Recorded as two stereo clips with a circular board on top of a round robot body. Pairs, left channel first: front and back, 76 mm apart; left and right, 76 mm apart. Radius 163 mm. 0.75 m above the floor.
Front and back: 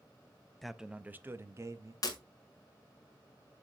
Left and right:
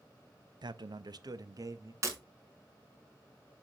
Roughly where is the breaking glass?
Ahead right.